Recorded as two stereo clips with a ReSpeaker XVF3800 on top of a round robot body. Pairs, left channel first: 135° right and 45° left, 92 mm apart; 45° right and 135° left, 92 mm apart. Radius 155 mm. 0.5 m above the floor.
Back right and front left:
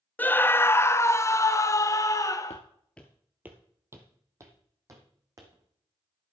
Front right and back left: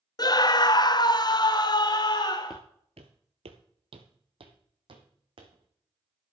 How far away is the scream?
About 0.8 m.